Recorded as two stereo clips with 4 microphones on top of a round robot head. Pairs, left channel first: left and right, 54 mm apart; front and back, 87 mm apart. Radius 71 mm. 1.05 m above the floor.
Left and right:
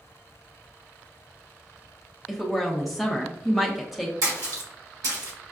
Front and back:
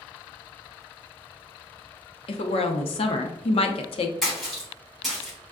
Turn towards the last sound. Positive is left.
turn(degrees=-90)